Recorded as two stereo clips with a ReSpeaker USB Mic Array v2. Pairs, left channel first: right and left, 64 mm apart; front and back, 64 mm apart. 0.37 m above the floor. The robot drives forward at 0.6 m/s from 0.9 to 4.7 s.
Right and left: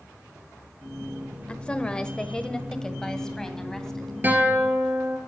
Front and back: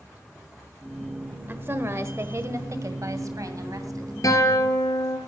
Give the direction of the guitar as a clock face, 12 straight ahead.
11 o'clock.